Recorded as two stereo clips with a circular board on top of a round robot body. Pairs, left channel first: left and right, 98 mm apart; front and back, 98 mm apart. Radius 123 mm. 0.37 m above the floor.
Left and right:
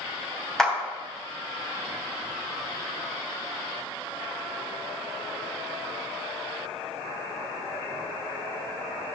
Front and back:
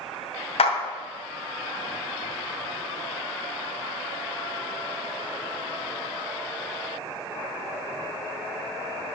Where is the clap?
5° left, 2.5 m.